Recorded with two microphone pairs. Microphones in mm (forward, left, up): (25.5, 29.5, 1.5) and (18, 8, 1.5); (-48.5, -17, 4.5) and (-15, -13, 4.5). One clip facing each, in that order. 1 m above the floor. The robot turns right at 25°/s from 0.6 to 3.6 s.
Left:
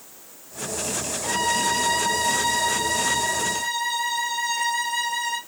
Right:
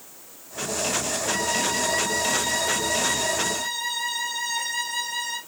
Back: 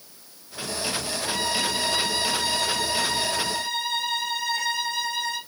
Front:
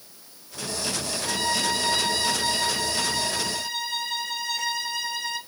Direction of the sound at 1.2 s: 100° left.